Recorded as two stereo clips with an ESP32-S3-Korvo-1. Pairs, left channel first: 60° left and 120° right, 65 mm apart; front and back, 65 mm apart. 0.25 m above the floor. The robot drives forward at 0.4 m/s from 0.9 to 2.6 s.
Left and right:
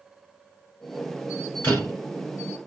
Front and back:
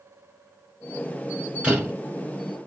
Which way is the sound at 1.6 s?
110° left.